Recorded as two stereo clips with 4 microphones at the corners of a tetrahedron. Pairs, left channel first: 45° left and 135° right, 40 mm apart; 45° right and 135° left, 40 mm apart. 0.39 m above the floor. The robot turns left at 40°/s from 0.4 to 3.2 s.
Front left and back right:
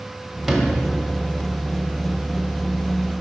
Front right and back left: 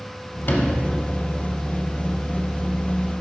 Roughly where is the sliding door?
Ahead right.